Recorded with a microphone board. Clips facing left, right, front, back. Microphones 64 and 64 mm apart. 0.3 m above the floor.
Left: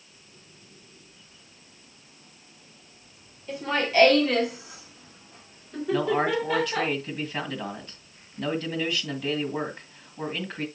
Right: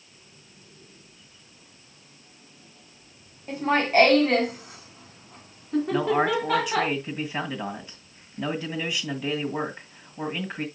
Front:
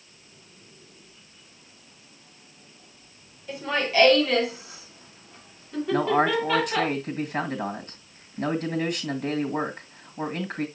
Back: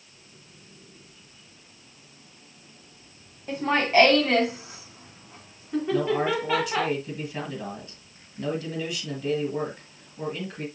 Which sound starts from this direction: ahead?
A man speaking, at 5.9 s.